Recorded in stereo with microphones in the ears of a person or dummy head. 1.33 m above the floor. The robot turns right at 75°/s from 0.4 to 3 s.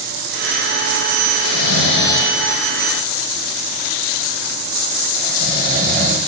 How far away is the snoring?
About 1.3 m.